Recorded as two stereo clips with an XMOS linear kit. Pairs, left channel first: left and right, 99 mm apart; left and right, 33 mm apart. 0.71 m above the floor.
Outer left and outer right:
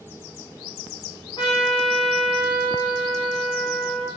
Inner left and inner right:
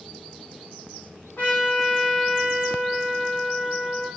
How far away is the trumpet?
About 1.0 m.